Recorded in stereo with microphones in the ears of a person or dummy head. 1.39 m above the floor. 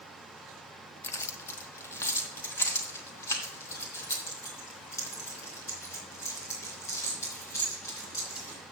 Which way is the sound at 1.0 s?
15° left (ahead or behind).